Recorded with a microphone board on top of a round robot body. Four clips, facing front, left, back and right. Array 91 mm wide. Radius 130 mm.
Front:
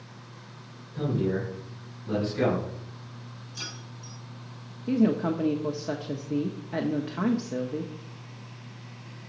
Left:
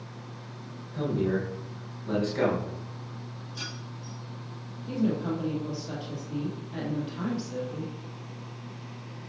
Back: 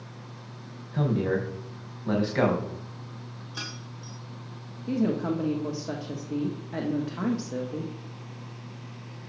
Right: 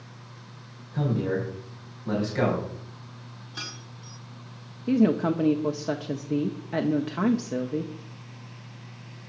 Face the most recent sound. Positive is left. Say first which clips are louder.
# right 6 dB, front 2 dB
turn(degrees=-80)